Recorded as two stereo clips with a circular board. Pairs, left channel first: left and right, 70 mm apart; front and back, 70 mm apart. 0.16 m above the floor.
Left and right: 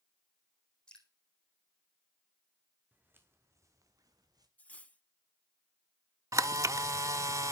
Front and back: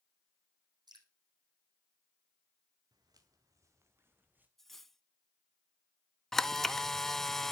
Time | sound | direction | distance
0.9 | dripping | 170° left | 3.5 m
2.9 | footsteps | 155° right | 2.5 m
4.6 | cutlery clinking | 75° left | 0.7 m
6.3 | a camera shutter | 80° right | 0.5 m